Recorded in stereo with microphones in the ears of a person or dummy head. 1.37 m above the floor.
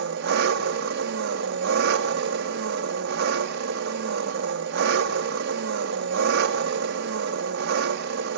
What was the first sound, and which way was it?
An engine running, 60° right (ahead or behind).